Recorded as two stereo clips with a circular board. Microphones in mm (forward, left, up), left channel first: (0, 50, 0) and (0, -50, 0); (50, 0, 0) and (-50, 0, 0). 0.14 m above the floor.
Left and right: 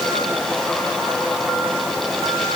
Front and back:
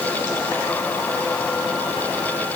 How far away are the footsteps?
No footsteps in this recording.